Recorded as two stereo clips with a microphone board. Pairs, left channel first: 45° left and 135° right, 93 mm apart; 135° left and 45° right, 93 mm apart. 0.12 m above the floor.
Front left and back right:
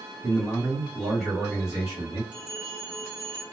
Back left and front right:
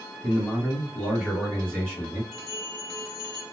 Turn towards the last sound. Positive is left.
turn(degrees=-145)